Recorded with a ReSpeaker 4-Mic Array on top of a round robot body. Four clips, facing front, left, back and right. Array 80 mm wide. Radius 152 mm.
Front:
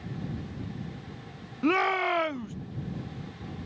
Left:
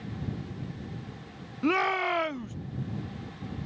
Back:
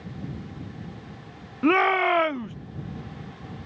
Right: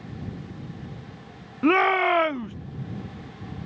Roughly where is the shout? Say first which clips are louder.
Right 7 dB, back 5 dB; behind right.